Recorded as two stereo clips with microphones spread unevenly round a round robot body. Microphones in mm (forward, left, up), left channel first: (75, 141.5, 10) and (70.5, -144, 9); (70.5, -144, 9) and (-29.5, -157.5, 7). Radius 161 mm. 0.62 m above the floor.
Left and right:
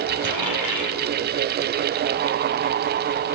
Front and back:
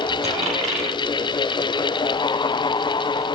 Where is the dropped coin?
175° right, 7.5 m.